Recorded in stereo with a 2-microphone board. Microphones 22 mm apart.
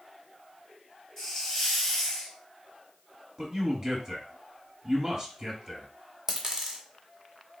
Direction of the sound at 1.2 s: 15° left (ahead or behind).